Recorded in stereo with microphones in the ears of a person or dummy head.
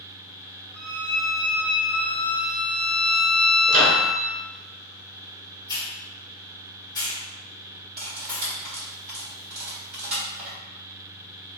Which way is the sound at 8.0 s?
10° right (ahead or behind).